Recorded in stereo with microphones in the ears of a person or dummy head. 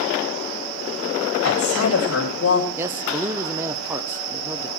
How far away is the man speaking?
About 0.7 m.